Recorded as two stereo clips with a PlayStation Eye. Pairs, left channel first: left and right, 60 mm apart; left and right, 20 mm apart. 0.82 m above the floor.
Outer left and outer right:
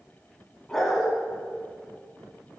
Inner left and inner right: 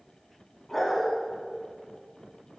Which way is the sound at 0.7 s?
5° left (ahead or behind).